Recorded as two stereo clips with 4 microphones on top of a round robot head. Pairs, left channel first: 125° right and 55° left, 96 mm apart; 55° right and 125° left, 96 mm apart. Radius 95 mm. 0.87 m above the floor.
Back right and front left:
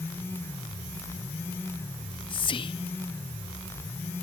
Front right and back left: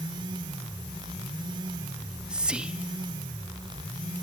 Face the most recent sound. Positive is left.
turn(degrees=-155)